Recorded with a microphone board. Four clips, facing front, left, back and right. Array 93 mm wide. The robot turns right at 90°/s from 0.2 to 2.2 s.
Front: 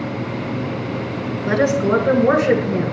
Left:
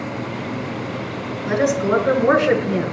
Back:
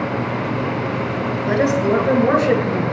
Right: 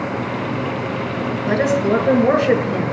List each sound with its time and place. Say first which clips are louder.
1.5 s a woman speaking: right 1 dB, front 1 dB; 5° left, 3.5 m; by 2.9 s 70° left, 3.5 m